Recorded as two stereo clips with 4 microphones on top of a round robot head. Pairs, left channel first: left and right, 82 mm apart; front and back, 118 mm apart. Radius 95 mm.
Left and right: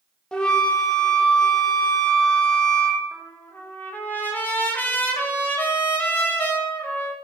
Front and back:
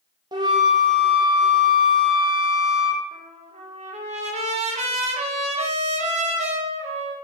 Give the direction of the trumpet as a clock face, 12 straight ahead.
7 o'clock.